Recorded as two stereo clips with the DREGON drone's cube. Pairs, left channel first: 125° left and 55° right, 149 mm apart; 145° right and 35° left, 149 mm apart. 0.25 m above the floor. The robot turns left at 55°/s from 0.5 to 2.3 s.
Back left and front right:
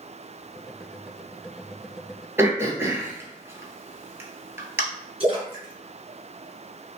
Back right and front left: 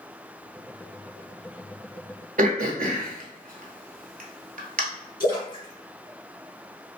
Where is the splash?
10° right, 1.7 m.